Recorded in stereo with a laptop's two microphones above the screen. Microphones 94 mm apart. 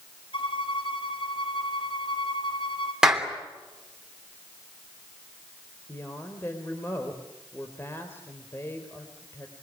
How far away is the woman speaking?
About 3.5 m.